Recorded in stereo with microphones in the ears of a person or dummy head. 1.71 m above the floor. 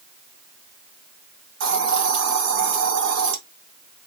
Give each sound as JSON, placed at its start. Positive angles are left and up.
{"t": 1.6, "sound": "a hiss", "side_deg": -80, "distance_m": 1.1}